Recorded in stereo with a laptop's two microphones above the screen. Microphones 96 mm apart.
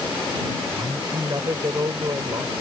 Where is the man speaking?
40° right (ahead or behind).